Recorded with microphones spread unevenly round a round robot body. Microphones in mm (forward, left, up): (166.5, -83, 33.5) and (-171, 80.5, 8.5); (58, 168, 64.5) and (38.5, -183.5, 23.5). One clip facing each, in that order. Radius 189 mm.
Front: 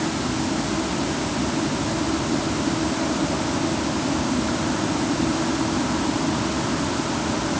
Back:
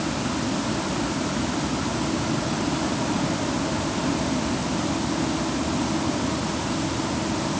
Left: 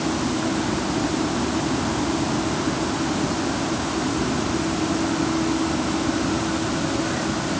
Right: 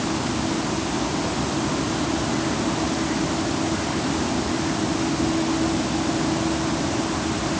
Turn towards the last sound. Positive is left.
No sound to turn to.